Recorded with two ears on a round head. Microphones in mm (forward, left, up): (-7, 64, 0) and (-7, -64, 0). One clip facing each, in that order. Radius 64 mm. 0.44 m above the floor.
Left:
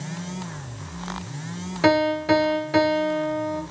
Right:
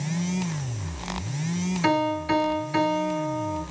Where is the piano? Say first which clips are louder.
Left 5 dB; 60° left (ahead or behind), 1.9 m.